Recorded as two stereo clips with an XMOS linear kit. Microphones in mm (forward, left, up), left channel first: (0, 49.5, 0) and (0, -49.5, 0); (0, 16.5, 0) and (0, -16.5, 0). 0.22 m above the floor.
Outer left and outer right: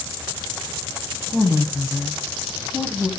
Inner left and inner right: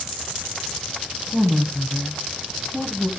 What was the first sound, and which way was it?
A woman speaking, 15° left (ahead or behind).